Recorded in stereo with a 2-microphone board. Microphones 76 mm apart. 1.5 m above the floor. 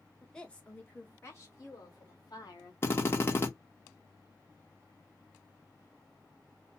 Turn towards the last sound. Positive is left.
turn(degrees=30)  # may be behind; listen again after turning